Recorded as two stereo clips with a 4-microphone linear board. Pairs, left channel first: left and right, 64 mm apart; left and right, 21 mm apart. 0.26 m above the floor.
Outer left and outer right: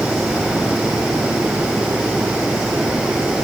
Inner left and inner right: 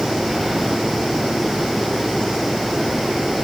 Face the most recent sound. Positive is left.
No sound to turn to.